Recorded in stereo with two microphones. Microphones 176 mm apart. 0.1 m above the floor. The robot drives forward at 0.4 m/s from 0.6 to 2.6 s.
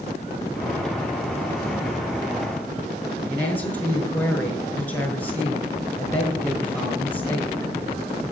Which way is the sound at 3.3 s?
10° left (ahead or behind).